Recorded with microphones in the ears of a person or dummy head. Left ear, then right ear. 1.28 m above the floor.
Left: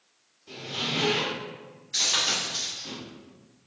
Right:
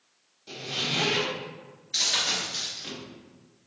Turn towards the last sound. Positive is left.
turn(degrees=5)  # may be behind; listen again after turning